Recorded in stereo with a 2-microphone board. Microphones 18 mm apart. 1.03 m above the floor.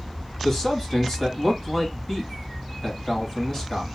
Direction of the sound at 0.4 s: 30° left (ahead or behind).